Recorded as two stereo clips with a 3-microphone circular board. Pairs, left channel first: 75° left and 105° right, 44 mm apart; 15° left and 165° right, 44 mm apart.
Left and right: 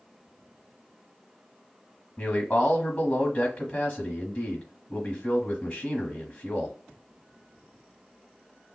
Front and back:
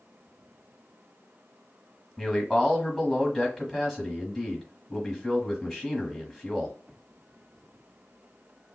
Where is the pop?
I don't hear a pop.